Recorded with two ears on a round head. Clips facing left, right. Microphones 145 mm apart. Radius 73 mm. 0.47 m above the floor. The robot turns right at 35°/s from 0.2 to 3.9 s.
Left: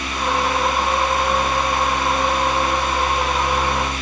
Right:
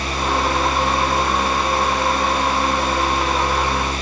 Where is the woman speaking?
No woman speaking in this recording.